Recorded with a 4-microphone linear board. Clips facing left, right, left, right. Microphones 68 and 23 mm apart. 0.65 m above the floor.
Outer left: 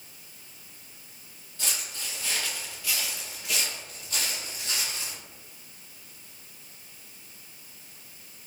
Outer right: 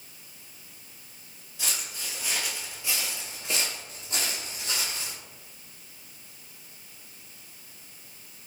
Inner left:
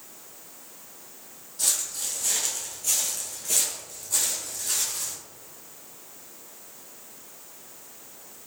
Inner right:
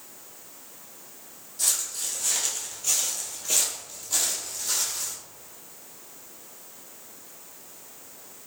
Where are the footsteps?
5° right (ahead or behind), 1.0 m; by 5.2 s 30° right (ahead or behind), 1.2 m.